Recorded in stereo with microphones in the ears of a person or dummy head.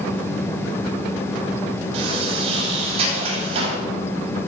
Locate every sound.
1.9 s a sliding door: 40° right (ahead or behind), 9.5 m